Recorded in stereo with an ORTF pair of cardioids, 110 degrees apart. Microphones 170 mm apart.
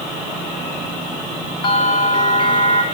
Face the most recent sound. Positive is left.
turn(degrees=30)